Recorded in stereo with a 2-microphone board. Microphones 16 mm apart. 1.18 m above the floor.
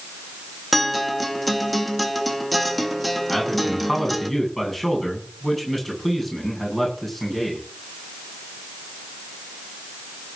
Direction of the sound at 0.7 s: 5° left (ahead or behind).